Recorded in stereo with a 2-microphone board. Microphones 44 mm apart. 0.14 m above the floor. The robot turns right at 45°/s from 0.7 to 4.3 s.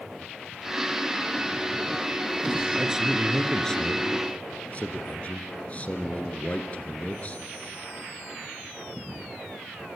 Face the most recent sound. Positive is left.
turn(degrees=45)